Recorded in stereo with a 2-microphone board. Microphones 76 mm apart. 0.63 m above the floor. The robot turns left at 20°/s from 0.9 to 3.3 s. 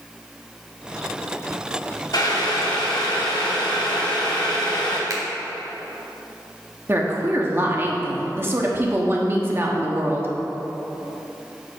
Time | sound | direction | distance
2.1 | boiling | 65° left (ahead or behind) | 1.5 m
5.1 | a finger snap | 50° right (ahead or behind) | 1.2 m
6.9 | a woman speaking | 30° right (ahead or behind) | 1.0 m